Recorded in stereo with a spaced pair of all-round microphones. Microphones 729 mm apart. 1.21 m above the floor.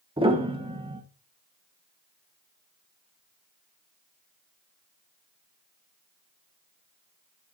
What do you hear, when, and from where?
0.2 s a piano: 10° right (ahead or behind), 1.2 m